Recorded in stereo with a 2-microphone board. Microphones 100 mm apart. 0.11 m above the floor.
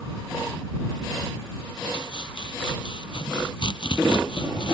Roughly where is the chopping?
Left.